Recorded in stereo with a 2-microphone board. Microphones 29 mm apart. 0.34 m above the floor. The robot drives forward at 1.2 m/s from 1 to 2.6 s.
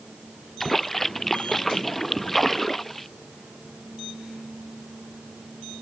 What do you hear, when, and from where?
0.6 s a splash: 5° left (ahead or behind)